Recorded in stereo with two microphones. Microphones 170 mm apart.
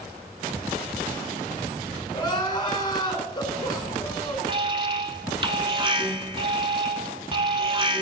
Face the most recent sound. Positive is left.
turn(degrees=-30)  # may be behind; listen again after turning